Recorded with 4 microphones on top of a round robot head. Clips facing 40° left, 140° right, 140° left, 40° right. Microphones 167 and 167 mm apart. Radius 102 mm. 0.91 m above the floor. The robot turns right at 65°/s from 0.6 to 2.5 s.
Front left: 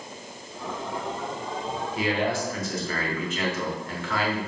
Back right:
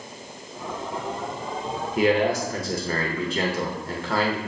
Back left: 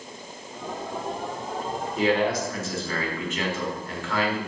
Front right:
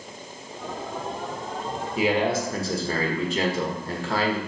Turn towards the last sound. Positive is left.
turn(degrees=-90)